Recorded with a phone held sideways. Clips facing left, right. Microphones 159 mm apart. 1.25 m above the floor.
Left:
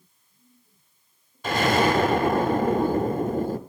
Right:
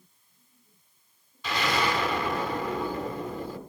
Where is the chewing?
No chewing in this recording.